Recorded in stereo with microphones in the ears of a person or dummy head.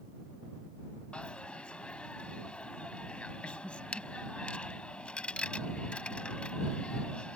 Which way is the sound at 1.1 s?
5° left (ahead or behind).